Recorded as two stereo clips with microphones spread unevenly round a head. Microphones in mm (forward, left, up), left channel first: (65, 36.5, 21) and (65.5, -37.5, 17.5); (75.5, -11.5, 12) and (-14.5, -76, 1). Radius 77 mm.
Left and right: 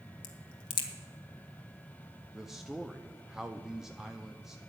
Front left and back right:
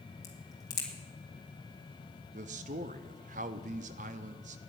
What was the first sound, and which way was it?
A crack, 105° left.